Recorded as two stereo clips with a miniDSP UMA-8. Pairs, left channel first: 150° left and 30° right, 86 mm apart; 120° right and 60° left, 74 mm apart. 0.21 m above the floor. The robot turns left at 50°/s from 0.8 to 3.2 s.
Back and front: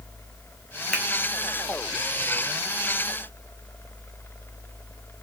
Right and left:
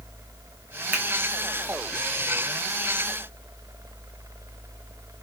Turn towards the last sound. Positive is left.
turn(degrees=-25)